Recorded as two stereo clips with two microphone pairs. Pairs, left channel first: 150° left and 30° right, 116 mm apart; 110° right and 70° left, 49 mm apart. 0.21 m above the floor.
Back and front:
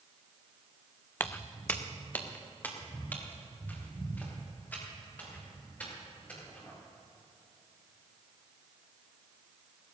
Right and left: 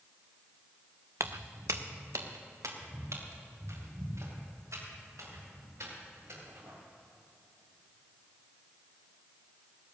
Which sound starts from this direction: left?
Footsteps, at 1.2 s.